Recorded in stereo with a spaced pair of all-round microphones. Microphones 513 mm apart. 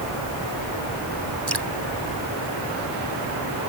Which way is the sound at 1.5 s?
55° right (ahead or behind).